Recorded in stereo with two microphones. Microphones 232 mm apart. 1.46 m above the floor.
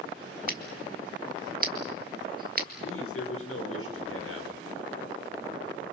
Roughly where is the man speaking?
Left.